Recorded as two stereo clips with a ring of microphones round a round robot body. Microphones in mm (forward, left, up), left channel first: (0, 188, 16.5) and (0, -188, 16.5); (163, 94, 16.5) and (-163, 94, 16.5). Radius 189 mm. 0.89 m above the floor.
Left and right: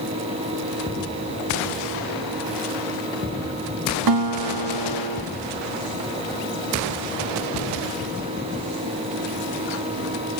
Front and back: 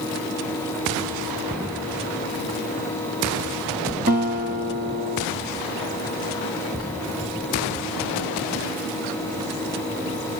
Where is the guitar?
115° right, 1.6 m.